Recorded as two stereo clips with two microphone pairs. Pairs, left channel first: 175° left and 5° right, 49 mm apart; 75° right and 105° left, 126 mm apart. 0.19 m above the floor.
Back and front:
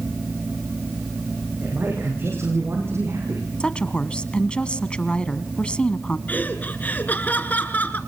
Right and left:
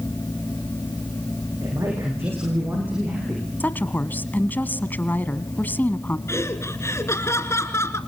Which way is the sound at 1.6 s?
40° left.